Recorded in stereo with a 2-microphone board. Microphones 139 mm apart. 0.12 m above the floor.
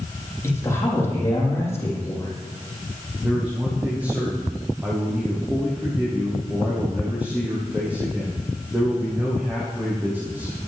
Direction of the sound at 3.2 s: 10° right (ahead or behind).